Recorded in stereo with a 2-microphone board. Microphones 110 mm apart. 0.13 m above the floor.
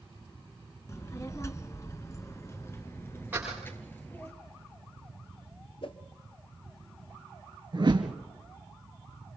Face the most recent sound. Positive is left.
turn(degrees=-50)  # may be behind; listen again after turning